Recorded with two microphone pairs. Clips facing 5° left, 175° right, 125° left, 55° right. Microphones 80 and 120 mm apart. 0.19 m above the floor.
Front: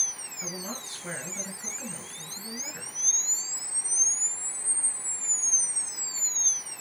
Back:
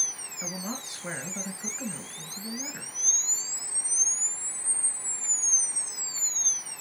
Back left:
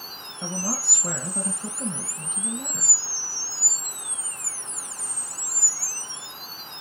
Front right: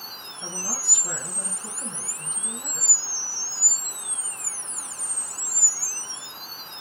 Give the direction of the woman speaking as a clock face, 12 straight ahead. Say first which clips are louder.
Back 2 dB, back left 6 dB; 8 o'clock.